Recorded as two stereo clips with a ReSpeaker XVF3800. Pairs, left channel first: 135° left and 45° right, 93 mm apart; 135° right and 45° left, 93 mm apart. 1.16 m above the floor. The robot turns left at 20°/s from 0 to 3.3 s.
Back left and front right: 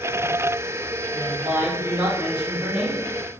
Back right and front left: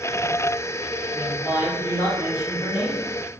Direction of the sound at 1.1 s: 80° right.